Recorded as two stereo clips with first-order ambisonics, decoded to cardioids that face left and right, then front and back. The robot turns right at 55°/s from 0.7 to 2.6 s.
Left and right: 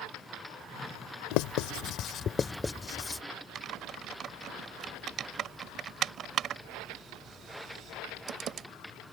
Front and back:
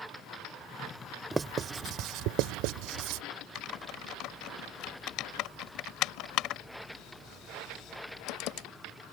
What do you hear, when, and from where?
1.3 s writing: 100° left; by 3.2 s 170° left
3.5 s typing on a keyboard: 35° right